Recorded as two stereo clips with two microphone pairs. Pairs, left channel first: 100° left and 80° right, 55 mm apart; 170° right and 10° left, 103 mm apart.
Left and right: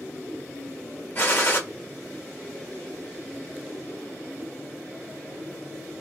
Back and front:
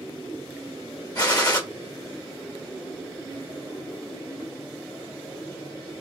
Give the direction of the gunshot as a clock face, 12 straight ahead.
7 o'clock.